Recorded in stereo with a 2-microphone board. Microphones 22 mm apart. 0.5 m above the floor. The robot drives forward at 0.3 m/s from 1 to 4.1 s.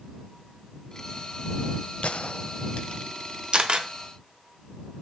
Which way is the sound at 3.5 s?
50° right (ahead or behind).